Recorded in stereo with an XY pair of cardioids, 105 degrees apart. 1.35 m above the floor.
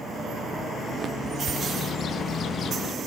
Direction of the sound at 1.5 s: 55° left.